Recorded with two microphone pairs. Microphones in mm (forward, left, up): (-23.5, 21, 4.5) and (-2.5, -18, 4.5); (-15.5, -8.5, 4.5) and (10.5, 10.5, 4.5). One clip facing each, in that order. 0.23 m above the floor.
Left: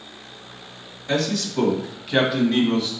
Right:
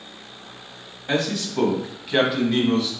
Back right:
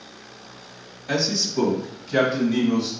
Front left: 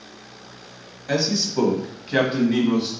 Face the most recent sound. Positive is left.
turn(degrees=40)